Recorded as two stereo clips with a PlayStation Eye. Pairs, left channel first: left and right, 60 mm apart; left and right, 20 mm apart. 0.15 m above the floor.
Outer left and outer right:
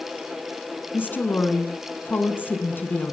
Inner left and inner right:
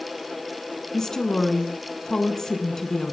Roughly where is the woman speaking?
Left.